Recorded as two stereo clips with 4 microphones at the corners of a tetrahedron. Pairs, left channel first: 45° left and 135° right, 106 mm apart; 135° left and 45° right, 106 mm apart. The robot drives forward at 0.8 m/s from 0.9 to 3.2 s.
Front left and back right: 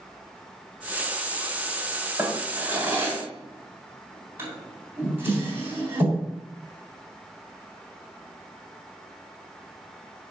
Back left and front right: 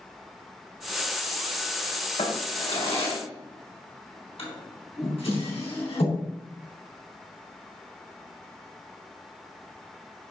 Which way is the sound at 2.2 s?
155° left.